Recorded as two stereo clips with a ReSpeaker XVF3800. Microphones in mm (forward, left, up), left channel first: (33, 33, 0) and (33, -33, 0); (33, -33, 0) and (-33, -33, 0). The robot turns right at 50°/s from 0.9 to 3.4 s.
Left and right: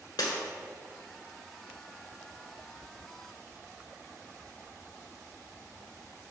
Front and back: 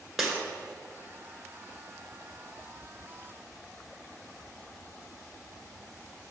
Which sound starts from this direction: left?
Breaking glass, at 0.2 s.